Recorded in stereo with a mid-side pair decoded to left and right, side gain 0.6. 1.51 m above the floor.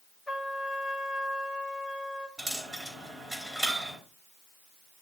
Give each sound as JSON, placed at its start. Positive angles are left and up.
{"t": 0.3, "sound": "a trumpet", "azimuth_deg": 5, "distance_m": 2.5}
{"t": 2.4, "sound": "a dropped coin", "azimuth_deg": -5, "distance_m": 3.5}